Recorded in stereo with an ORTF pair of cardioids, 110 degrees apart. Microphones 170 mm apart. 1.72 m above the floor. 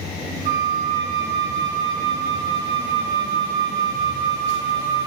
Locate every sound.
0.5 s a flute: 55° right, 2 m